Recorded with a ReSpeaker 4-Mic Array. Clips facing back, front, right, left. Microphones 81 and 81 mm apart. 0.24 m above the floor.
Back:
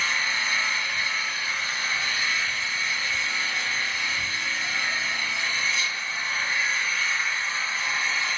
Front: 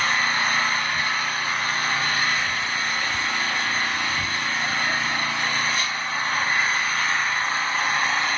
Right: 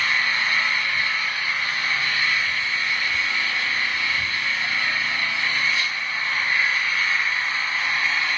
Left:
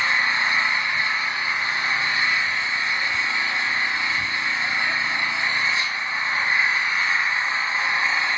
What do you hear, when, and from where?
0.0 s an engine running: 25° left, 0.7 m